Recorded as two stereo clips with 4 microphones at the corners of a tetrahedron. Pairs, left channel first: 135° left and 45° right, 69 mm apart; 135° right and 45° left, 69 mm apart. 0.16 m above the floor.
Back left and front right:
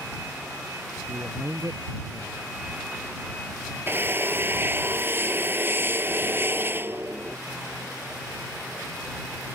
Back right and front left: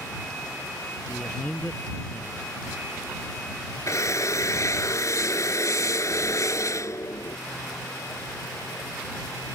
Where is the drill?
100° right.